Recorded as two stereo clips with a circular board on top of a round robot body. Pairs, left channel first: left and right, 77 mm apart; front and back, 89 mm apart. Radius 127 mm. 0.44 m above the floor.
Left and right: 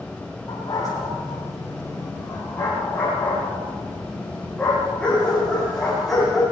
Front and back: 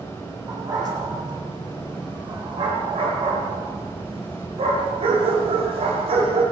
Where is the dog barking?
135° left, 10 m; by 6.4 s 175° left, 12 m.